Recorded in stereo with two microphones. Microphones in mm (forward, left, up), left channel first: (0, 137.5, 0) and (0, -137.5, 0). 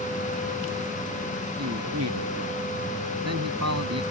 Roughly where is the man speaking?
Right.